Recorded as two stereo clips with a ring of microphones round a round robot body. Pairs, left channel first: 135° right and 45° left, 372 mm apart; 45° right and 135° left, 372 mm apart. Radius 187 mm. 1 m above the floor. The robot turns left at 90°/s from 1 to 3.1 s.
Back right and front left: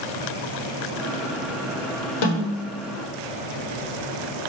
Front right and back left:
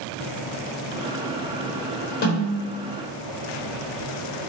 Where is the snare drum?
115° right, 1.0 m; by 2.9 s 170° right, 1.0 m.